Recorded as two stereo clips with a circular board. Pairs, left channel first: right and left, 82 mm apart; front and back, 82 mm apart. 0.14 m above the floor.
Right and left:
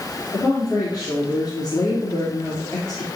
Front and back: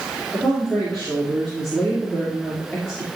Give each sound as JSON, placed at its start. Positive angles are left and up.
{"t": 0.3, "sound": "a woman speaking", "azimuth_deg": -80, "distance_m": 3.0}